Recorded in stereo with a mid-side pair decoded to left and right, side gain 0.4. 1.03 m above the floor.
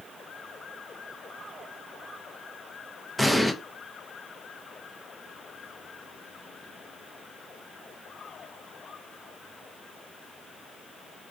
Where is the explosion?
10° left, 0.6 m.